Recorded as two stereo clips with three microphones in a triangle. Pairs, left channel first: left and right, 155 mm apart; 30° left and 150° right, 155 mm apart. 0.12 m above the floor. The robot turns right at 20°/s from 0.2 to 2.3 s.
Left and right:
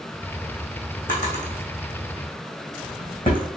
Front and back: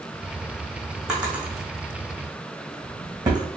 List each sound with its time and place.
1.1 s a drawer: 125° left, 1.6 m; by 3.5 s 150° left, 1.6 m